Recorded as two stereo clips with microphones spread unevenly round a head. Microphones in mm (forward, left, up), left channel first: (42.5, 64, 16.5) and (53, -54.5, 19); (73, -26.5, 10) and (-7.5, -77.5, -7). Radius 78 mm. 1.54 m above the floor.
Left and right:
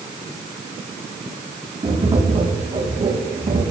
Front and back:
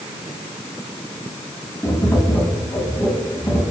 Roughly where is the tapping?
Ahead right.